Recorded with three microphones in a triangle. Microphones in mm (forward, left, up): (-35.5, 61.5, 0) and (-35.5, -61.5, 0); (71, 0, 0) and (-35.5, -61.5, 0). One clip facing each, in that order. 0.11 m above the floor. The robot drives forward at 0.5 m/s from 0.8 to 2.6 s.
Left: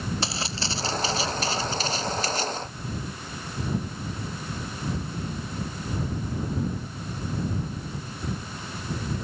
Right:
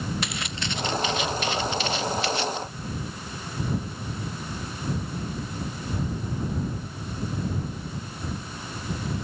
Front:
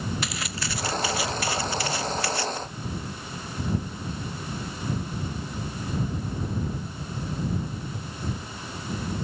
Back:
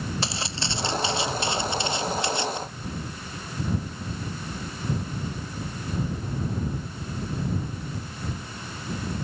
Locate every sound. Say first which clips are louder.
0.2 s footsteps: left 1 dB, back 1 dB; 150° left; by 2.6 s 140° left